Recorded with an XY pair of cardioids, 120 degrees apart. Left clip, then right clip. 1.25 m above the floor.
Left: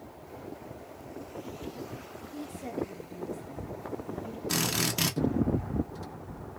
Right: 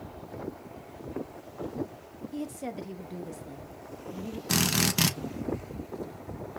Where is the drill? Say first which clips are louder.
Right 3 dB; 30° right, 0.9 m.